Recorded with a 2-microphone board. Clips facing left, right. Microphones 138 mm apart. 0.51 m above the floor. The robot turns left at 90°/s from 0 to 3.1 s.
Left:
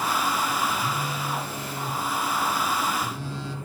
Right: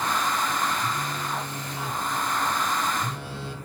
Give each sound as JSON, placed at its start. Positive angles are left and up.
{"t": 0.8, "sound": "a phone buzzing", "azimuth_deg": 140, "distance_m": 0.9}